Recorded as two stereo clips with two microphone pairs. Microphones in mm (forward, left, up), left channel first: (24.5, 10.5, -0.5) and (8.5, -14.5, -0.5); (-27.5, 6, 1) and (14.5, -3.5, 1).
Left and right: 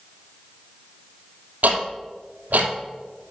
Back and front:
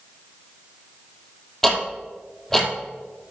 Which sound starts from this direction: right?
Ticking, at 1.6 s.